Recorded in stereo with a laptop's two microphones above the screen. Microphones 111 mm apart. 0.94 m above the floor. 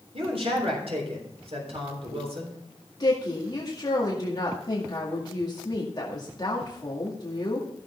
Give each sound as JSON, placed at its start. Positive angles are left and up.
{"t": 0.1, "sound": "a man speaking", "side_deg": -65, "distance_m": 3.5}
{"t": 3.0, "sound": "a woman speaking", "side_deg": 40, "distance_m": 2.0}